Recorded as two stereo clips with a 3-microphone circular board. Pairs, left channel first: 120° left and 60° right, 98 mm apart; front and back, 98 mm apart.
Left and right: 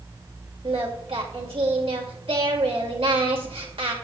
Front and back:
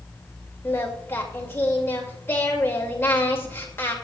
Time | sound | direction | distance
0.6 | singing | 65° right | 2 m